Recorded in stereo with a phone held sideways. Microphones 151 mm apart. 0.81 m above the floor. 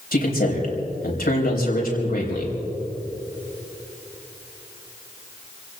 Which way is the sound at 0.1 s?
75° left (ahead or behind).